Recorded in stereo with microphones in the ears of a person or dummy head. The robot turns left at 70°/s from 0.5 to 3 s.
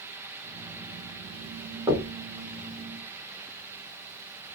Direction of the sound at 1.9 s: 15° right (ahead or behind).